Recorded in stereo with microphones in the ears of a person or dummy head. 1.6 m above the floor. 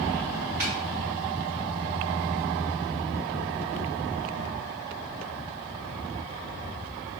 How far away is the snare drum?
About 2.5 m.